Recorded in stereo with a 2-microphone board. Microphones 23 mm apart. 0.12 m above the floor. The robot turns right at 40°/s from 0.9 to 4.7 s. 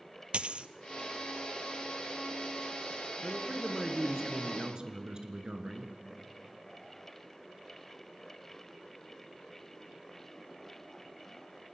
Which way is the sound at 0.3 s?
55° right (ahead or behind).